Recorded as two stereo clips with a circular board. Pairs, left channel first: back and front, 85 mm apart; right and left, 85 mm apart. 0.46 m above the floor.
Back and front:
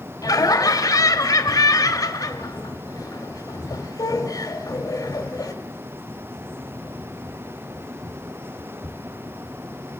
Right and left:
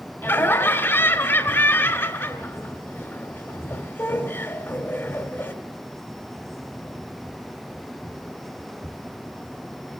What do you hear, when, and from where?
0.2 s laughter: 145° right, 1.8 m